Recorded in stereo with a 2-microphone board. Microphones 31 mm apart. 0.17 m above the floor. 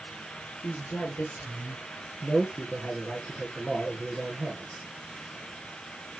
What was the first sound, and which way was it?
A woman speaking, 60° left (ahead or behind).